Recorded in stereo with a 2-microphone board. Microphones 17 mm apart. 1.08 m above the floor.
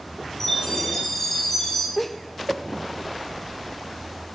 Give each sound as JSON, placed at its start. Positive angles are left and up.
{"t": 0.4, "sound": "a chime", "side_deg": 25, "distance_m": 6.5}
{"t": 2.0, "sound": "laughter", "side_deg": 15, "distance_m": 0.7}